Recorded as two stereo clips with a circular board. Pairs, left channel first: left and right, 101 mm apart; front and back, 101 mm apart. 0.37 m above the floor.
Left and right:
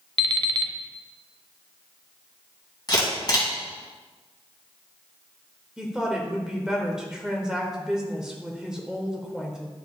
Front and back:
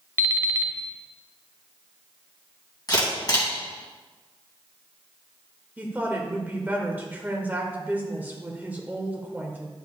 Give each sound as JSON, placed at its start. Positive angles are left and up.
{"t": 0.2, "sound": "an alarm clock", "azimuth_deg": -125, "distance_m": 0.7}
{"t": 2.9, "sound": "a camera shutter", "azimuth_deg": 45, "distance_m": 3.0}
{"t": 5.8, "sound": "a woman speaking", "azimuth_deg": -160, "distance_m": 1.4}